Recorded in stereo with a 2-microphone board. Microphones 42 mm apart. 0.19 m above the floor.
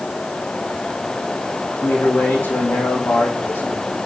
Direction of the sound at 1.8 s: 75° left (ahead or behind).